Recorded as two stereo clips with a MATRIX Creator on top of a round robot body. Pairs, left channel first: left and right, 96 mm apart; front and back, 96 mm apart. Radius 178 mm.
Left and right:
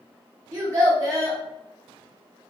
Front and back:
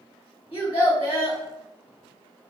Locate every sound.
0.5 s a child speaking: 35° right, 1.9 m